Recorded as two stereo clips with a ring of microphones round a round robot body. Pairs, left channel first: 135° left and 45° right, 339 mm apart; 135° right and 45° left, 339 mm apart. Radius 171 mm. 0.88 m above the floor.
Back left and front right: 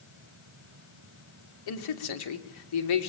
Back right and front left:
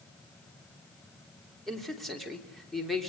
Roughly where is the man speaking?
Behind left.